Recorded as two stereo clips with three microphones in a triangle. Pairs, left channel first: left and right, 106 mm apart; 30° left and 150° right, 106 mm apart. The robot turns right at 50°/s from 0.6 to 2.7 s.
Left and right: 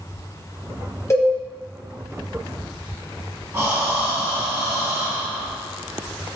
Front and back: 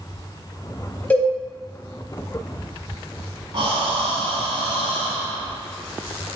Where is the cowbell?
90° left, 0.7 m; by 1.3 s 95° left, 0.7 m.